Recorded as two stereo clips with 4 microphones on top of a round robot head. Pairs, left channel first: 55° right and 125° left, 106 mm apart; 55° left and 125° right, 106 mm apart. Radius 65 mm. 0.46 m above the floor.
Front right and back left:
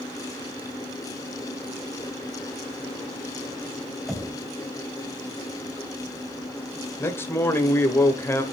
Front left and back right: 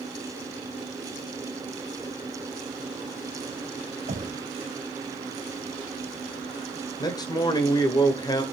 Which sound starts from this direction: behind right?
Knocking, at 4.1 s.